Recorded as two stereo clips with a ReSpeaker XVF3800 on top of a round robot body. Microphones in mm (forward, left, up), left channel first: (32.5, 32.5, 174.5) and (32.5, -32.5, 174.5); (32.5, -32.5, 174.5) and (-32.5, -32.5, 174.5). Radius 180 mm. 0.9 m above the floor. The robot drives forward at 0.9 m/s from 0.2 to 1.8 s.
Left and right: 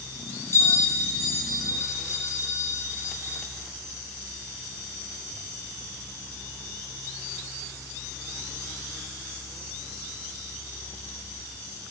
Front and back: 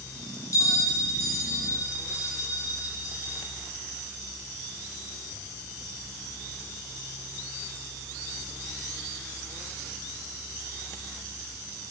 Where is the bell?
40° left, 6 m; by 3.4 s 50° left, 5.5 m.